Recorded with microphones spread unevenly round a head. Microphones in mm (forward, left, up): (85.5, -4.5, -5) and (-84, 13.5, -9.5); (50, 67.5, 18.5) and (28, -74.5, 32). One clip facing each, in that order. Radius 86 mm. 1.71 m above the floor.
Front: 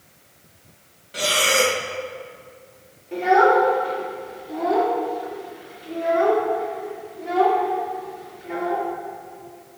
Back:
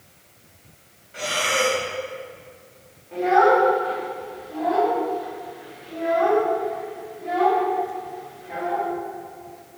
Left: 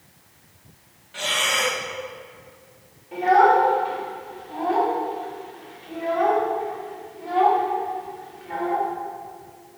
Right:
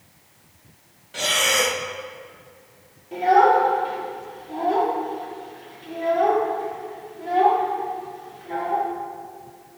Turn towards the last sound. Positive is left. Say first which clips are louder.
# front 1 dB, even
turn(degrees=-55)